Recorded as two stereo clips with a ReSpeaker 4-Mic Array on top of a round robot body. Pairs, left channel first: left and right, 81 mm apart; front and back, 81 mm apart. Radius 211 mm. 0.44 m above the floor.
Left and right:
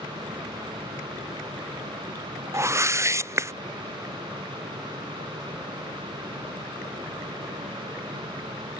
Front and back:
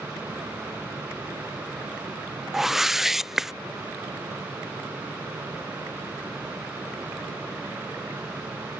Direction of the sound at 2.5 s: 100° right.